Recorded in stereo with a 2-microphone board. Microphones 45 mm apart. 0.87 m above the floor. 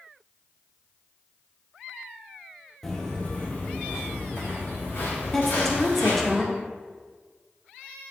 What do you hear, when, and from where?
2.8 s footsteps: 10° left (ahead or behind), 1.0 m; by 6.3 s 60° left (ahead or behind), 3 m
5.3 s a woman speaking: 5° left (ahead or behind), 0.5 m